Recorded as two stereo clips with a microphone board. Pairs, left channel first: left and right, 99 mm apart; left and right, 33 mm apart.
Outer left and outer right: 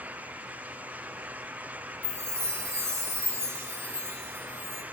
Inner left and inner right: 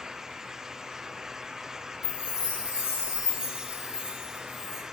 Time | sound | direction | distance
2.0 | a chime | 25° right (ahead or behind) | 1.1 m